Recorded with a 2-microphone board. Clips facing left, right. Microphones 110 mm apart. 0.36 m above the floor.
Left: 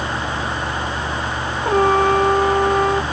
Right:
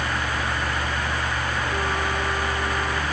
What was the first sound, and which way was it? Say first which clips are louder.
A trumpet: left 16 dB; 65° left (ahead or behind).